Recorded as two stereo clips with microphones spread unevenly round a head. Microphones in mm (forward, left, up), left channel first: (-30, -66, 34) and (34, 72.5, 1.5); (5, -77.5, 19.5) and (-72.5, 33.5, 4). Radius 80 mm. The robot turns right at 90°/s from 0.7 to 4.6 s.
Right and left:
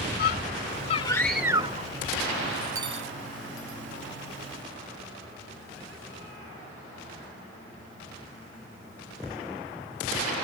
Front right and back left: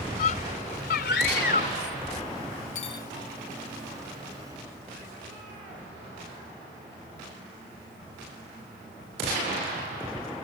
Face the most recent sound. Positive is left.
turn(degrees=160)